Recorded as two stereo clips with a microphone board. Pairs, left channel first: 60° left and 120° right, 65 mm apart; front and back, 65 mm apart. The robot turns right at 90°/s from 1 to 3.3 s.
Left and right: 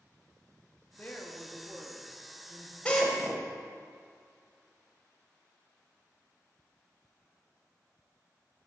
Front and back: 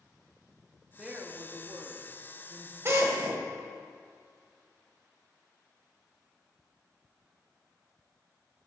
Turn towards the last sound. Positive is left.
turn(degrees=170)